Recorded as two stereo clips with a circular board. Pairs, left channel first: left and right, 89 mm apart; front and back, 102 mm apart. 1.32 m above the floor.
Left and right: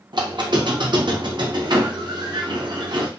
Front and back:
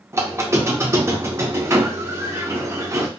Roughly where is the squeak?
Behind right.